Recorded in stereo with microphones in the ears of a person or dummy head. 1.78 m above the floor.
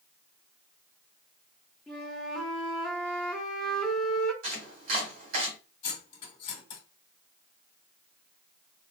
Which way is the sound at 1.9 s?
Centre (ahead or behind).